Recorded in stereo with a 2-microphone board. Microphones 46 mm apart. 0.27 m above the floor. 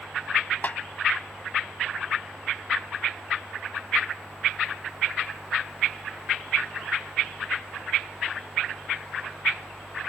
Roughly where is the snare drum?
Left.